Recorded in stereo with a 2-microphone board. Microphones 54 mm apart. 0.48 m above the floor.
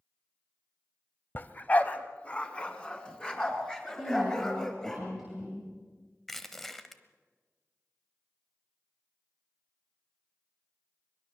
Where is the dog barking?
35° left (ahead or behind), 0.9 m; by 5.0 s 15° left (ahead or behind), 4 m.